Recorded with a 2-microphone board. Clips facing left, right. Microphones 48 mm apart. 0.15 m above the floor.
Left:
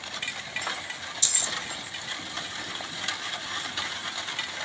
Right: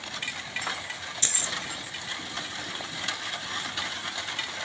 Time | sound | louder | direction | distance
1.2 | keys jangling | even | 35° right (ahead or behind) | 1.8 m